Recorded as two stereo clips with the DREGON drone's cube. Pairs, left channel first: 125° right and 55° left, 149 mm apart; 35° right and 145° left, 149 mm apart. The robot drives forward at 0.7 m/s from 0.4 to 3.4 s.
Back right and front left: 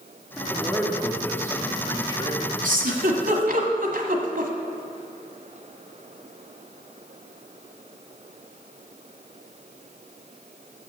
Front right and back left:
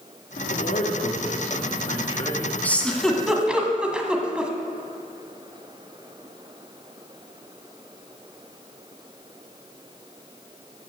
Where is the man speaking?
35° right, 2 m; by 2.5 s 90° right, 1.4 m.